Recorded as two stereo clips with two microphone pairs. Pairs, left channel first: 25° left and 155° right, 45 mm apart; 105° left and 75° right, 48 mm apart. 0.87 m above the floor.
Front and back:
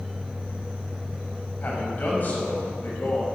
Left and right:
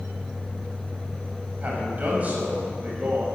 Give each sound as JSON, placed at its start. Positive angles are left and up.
{"t": 1.6, "sound": "a man speaking", "azimuth_deg": -20, "distance_m": 6.0}